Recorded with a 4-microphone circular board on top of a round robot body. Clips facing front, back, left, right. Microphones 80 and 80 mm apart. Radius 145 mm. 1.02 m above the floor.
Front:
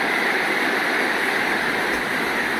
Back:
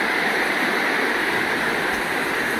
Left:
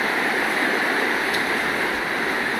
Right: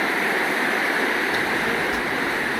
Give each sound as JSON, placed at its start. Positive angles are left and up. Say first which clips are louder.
{"t": 1.3, "sound": "a child speaking", "louder": "even, even", "azimuth_deg": -140, "distance_m": 1.0}